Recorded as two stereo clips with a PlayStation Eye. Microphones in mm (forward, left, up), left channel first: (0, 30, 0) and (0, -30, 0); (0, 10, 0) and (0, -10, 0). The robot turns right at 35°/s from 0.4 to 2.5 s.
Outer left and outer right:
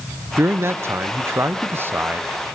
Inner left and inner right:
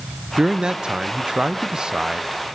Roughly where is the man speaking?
Behind right.